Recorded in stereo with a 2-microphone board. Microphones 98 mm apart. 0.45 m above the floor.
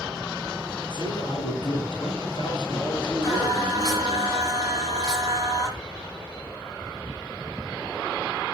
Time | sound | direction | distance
0.9 | a man speaking | 50° left (ahead or behind) | 6 m
3.2 | singing | 40° left (ahead or behind) | 7.5 m